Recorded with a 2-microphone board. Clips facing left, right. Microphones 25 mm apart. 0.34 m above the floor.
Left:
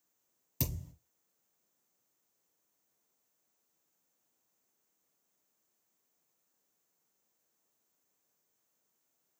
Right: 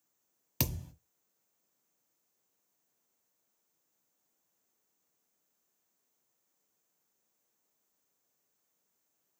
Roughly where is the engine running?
No engine running in this recording.